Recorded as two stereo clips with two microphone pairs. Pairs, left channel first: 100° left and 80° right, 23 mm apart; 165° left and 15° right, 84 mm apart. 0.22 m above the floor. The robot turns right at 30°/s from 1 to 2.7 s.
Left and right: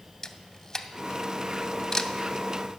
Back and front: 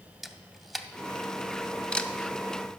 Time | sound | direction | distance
0.2 | a camera shutter | 85° left | 0.5 m